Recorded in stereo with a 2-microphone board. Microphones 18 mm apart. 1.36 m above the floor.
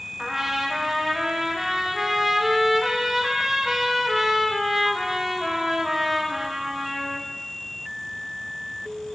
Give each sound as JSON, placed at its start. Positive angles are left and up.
{"t": 0.2, "sound": "a trumpet", "side_deg": -20, "distance_m": 1.0}